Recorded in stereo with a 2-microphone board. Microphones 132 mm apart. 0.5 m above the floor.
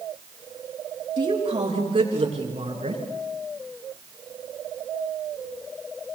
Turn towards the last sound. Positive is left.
turn(degrees=-50)  # may be behind; listen again after turning